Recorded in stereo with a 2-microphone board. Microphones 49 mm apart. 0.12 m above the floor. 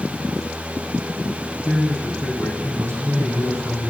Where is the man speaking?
65° right (ahead or behind), 6.5 m.